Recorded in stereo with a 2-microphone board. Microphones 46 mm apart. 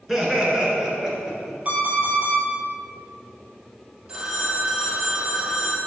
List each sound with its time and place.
0.1 s laughter: 10° right (ahead or behind), 1.8 m; by 1.6 s 15° right (ahead or behind), 2.5 m
1.6 s an alarm clock: 35° right (ahead or behind), 2.5 m
4.1 s a phone ringing: 20° right (ahead or behind), 1.8 m